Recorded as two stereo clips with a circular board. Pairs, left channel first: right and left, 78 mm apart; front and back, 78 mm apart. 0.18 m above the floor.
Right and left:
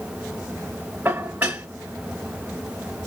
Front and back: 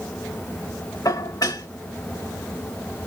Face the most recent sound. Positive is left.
turn(degrees=25)